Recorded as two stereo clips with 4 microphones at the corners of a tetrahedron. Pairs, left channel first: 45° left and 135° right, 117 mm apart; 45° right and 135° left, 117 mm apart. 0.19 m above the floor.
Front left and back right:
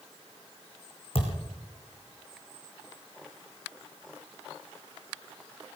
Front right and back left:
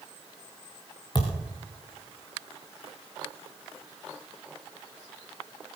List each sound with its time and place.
1.1 s a thud: 5° left, 4 m